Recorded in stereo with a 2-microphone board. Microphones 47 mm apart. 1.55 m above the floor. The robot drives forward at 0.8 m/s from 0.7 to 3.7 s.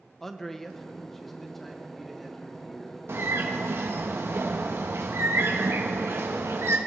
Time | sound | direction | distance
0.2 | a man speaking | 5° left (ahead or behind) | 1.0 m
3.1 | a bird | 65° right (ahead or behind) | 1.3 m